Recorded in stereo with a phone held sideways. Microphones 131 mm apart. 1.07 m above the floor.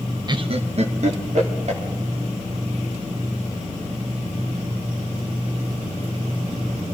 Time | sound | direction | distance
0.3 | laughter | 30° right (ahead or behind) | 0.6 m